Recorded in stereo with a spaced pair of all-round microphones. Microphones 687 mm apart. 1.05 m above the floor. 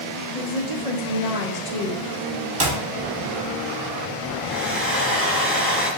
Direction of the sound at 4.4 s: 20° right (ahead or behind).